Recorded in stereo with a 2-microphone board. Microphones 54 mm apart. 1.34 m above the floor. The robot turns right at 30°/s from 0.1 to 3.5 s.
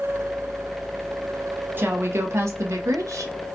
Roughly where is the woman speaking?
Behind right.